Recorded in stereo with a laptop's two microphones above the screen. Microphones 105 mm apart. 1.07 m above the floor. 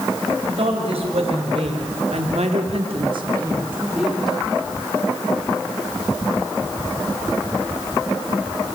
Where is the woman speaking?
65° right (ahead or behind), 4.5 m; by 4.4 s 5° left (ahead or behind), 2 m.